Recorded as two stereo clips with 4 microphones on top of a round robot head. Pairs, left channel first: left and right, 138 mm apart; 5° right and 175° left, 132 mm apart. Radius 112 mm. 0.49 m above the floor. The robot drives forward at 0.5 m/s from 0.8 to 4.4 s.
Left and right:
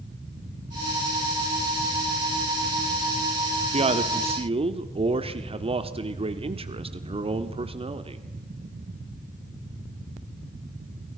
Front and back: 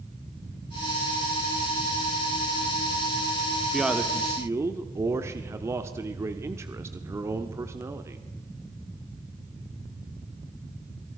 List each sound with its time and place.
3.7 s a man speaking: 100° right, 1.0 m; by 8.2 s 120° right, 1.1 m